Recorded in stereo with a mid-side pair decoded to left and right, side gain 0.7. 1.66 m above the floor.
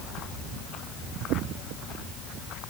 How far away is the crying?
I don't hear crying.